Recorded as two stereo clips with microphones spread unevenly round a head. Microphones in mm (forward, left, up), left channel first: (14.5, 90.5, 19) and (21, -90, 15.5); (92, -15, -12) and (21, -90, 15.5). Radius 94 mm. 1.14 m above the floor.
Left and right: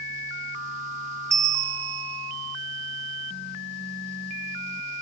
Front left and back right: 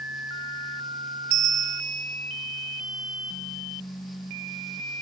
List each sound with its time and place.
1.3 s a bell: 160° right, 0.7 m